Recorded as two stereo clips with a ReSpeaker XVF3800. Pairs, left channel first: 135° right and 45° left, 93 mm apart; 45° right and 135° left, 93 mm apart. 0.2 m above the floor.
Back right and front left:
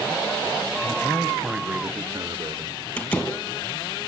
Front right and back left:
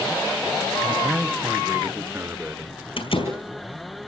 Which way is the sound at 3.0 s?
65° right.